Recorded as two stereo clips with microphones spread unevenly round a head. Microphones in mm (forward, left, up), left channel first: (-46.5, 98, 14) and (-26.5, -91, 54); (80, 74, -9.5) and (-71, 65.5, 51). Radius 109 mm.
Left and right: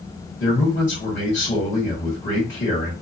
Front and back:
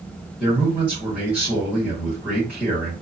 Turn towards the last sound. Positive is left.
turn(degrees=95)